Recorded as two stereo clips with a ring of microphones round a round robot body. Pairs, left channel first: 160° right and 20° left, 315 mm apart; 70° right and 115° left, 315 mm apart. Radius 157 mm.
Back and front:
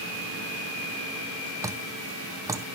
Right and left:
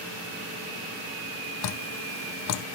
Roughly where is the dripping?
Ahead right.